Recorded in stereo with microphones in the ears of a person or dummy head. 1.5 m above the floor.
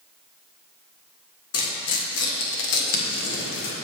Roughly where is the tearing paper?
Left.